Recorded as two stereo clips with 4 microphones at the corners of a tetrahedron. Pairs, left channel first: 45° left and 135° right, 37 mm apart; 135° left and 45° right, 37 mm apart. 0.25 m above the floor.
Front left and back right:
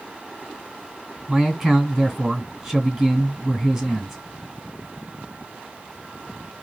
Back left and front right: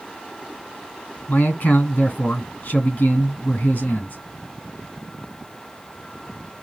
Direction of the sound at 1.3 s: 150° left.